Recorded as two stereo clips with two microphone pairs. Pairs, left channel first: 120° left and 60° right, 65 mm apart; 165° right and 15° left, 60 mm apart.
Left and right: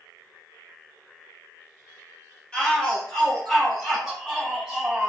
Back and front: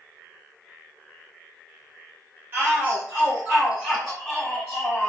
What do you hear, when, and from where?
2.5 s a shout: 55° left, 1.5 m; by 5.1 s 125° right, 1.2 m